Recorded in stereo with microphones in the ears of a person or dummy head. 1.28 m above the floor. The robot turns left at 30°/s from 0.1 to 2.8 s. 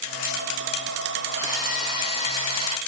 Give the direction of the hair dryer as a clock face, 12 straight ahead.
12 o'clock.